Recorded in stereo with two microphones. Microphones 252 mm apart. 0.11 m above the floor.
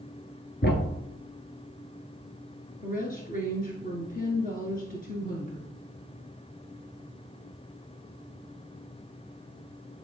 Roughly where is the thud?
Left.